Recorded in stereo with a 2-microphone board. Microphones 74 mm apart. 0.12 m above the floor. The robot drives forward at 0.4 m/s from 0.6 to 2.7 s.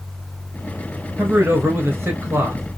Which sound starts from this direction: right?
A man speaking, at 1.2 s.